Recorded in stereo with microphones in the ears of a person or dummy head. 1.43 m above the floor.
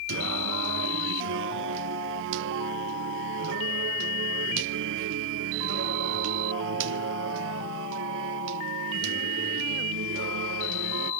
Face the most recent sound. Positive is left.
turn(degrees=-70)  # may be behind; listen again after turning